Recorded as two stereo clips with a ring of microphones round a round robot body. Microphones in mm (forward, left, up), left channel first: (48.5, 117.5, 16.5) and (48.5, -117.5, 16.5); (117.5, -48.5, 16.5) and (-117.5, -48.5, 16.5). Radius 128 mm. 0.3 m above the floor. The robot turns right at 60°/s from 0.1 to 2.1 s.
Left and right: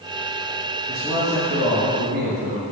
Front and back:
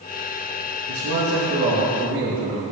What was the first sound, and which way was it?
A man speaking, 175° left.